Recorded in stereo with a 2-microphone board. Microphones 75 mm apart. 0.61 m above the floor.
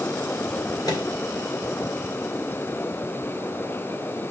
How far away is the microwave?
About 1.9 m.